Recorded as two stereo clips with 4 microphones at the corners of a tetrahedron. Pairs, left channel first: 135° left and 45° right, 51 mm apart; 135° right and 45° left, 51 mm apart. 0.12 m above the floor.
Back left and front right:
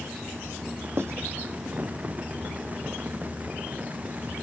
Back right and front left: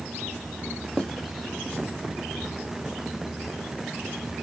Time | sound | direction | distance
1.0 | writing | 65° right | 0.7 m